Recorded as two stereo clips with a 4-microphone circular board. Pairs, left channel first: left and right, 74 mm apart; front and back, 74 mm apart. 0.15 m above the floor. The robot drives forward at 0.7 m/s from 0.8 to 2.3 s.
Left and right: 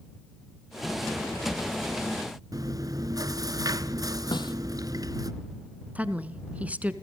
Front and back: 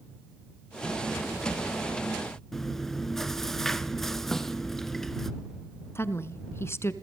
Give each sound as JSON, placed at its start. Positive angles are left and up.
{"t": 2.5, "sound": "chewing", "azimuth_deg": -85, "distance_m": 0.8}
{"t": 4.3, "sound": "a snare drum", "azimuth_deg": 85, "distance_m": 1.7}
{"t": 6.0, "sound": "a woman speaking", "azimuth_deg": -30, "distance_m": 1.5}